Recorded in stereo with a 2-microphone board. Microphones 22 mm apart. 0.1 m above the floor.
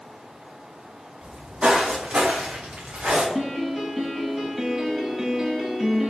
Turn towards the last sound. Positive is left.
turn(degrees=-20)  # may be behind; listen again after turning